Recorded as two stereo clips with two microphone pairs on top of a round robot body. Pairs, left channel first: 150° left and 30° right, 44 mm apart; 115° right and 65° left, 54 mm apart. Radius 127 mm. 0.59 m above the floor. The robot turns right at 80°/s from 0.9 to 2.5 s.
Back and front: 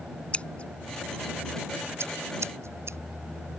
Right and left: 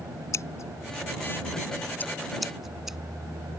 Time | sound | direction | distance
0.3 | scissors | 150° right | ?